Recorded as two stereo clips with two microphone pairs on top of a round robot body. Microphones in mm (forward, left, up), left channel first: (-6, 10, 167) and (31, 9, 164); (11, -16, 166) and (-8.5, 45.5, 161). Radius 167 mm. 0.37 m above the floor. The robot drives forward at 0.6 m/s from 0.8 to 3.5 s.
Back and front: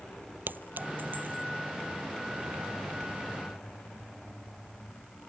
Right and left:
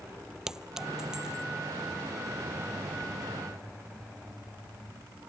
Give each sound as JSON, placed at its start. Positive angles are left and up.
{"t": 0.5, "sound": "a clink", "azimuth_deg": 25}